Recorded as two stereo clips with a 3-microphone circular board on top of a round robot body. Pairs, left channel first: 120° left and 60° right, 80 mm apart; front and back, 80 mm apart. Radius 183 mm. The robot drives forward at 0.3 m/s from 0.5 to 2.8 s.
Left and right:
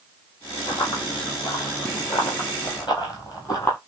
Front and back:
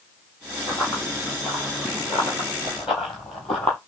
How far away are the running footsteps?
About 2 m.